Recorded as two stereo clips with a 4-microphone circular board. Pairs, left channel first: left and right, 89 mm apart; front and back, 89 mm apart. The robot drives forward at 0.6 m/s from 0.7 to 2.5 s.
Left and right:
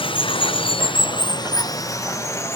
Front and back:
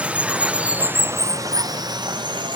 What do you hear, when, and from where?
0.0 s running water: 105° left, 0.8 m; by 2.6 s 150° left, 1.5 m